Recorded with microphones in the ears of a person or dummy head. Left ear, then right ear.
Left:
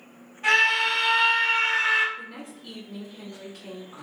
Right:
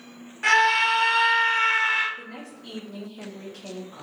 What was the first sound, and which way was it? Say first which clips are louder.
A scream: right 1 dB; 55° right (ahead or behind).